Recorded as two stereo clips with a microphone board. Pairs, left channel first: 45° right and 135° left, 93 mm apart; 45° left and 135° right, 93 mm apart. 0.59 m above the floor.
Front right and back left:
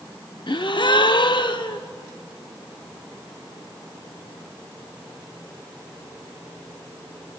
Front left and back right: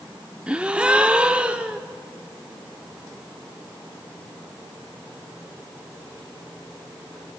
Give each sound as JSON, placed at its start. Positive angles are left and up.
{"t": 0.5, "sound": "a gasp", "azimuth_deg": -60, "distance_m": 0.6}